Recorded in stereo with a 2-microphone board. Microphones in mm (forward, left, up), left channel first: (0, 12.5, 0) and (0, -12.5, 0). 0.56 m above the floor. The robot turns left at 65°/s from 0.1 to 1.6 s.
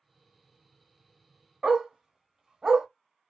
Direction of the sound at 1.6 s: 25° right (ahead or behind).